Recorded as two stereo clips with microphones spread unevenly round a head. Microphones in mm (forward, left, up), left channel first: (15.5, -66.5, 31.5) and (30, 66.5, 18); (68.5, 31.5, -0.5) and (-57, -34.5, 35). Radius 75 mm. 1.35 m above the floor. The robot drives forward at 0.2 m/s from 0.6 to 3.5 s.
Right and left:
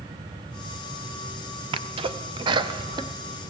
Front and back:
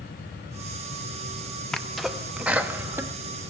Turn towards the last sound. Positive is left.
turn(degrees=135)